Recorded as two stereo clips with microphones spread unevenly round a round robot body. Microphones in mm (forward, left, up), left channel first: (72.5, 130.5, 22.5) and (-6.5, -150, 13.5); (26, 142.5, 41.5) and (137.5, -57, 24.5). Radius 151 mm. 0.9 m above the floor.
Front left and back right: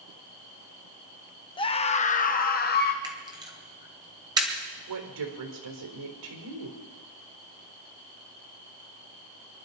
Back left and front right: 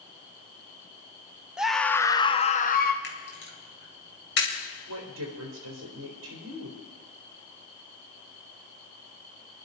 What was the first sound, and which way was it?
A scream, 15° left.